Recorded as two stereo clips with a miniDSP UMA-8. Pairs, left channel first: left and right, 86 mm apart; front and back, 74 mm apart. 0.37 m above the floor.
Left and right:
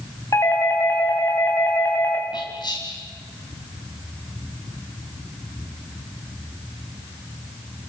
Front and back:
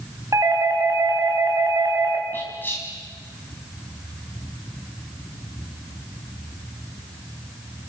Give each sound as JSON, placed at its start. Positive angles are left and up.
{"t": 0.3, "sound": "a doorbell", "azimuth_deg": 140, "distance_m": 4.0}
{"t": 2.3, "sound": "whispering", "azimuth_deg": 60, "distance_m": 3.0}